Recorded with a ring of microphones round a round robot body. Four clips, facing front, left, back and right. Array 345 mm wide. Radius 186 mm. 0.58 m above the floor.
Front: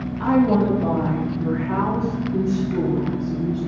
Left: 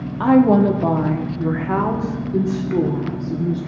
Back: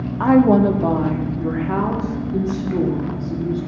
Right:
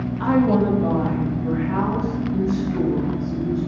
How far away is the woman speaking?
About 1.2 m.